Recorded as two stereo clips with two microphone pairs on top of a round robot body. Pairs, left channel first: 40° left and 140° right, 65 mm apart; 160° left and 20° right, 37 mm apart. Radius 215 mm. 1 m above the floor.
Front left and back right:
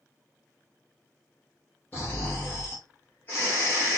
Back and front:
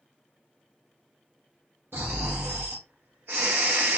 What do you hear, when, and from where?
1.9 s snoring: 25° right, 1.0 m